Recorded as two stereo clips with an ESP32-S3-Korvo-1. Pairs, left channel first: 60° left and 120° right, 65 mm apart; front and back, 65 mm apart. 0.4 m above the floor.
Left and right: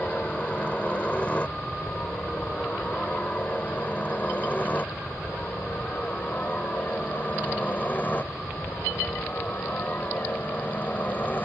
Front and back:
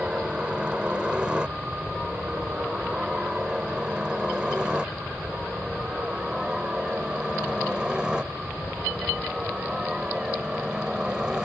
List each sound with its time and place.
0.0 s a helicopter: 115° left; by 11.5 s 105° left